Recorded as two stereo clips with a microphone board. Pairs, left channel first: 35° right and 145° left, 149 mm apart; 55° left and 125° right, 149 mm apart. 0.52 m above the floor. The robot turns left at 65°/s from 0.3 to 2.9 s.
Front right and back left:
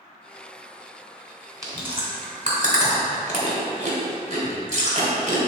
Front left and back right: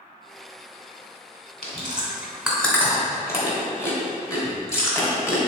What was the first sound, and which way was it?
Chewing, 155° right.